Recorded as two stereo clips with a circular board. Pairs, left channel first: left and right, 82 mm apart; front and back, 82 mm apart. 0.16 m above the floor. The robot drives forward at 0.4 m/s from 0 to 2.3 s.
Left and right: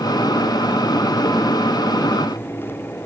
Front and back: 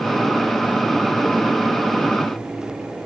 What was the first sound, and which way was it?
Only background noise.